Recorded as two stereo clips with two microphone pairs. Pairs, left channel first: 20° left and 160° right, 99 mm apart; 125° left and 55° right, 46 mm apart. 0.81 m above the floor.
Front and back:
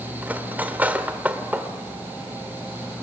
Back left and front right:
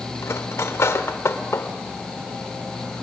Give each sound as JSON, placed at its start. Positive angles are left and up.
{"t": 0.2, "sound": "cutlery clinking", "azimuth_deg": 125, "distance_m": 1.5}